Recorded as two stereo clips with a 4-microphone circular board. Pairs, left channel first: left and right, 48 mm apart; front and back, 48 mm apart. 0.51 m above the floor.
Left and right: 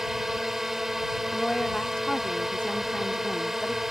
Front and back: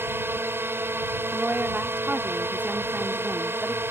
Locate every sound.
0.0 s a drone: 170° right
1.3 s a woman speaking: 155° left